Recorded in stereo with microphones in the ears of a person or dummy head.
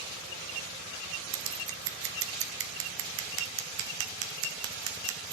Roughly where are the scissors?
Right.